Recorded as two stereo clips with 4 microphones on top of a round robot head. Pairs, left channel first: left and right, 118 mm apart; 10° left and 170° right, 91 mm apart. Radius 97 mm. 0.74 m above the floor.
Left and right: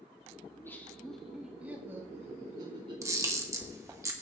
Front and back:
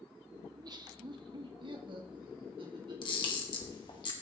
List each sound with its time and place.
0.5 s laughter: 155° left, 1.9 m; by 4.0 s 125° right, 3 m
3.0 s a camera shutter: 25° right, 1.9 m